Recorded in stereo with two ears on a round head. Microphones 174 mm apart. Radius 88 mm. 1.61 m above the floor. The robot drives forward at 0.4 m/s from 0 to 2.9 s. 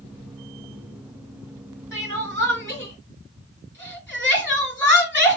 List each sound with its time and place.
1.9 s crying: 15° left (ahead or behind), 2.5 m